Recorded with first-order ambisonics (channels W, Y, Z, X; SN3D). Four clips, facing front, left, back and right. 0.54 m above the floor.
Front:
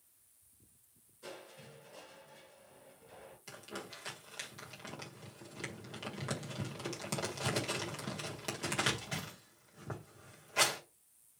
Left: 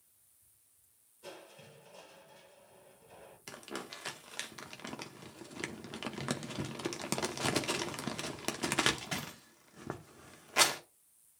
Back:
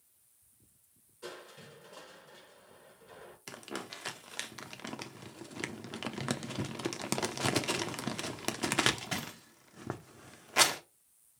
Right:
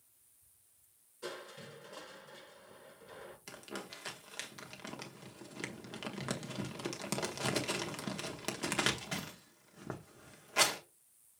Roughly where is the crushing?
Behind right.